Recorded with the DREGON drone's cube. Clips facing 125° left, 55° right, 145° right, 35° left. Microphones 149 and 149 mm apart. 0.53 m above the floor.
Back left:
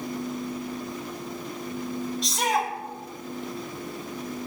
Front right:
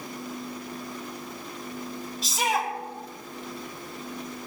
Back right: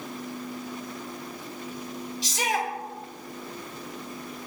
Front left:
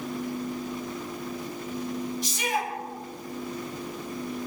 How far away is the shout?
About 4.5 m.